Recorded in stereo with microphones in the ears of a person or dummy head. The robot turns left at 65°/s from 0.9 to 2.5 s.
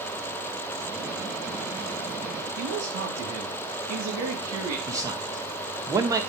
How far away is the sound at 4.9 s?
About 1.2 m.